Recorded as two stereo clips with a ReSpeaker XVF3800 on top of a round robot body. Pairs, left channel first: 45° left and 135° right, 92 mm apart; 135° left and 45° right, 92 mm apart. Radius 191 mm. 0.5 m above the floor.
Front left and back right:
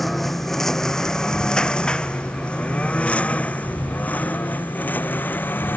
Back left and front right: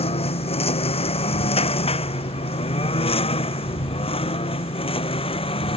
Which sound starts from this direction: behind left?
A lawn mower, at 0.0 s.